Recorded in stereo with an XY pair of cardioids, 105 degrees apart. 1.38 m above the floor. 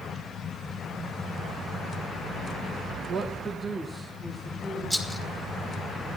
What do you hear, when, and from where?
3.1 s a woman speaking: 50° right, 1.0 m; by 4.8 s 10° right, 2.5 m
4.9 s a rattle: 15° right, 1.9 m